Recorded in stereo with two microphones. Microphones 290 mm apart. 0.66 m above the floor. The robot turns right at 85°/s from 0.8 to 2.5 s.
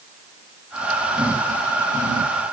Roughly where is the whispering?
I don't hear whispering.